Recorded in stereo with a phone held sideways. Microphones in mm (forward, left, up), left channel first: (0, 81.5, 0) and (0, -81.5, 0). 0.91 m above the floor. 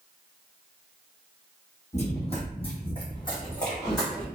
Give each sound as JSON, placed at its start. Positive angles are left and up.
{"t": 1.9, "sound": "running footsteps", "side_deg": 45, "distance_m": 1.5}